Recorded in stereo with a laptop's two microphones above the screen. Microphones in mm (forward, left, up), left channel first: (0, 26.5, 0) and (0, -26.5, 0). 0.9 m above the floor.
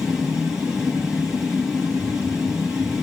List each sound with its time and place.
0.0 s a fan: 10° right (ahead or behind), 5.5 m